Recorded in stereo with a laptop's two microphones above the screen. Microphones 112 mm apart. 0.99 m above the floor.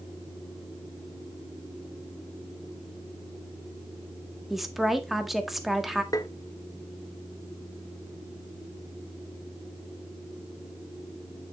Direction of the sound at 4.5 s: Centre (ahead or behind).